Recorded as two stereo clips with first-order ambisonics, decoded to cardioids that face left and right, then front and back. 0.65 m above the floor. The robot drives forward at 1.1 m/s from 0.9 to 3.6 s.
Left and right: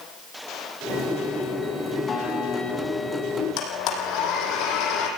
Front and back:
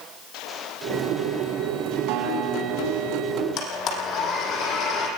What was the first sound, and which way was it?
A guitar, 160° left.